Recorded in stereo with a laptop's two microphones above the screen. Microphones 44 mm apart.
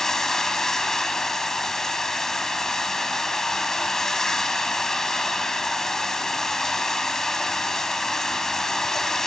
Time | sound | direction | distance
0.0 | running water | 10° left (ahead or behind) | 1.4 m